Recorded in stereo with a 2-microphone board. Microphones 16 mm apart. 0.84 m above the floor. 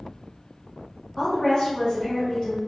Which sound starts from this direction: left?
A woman speaking, at 1.2 s.